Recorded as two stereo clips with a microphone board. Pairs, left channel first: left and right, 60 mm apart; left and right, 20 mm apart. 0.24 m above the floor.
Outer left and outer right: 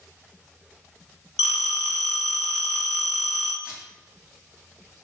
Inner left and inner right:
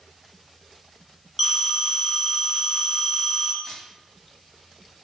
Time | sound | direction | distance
1.4 | a phone ringing | 20° right (ahead or behind) | 1.2 m
3.6 | a camera shutter | 20° right (ahead or behind) | 1.4 m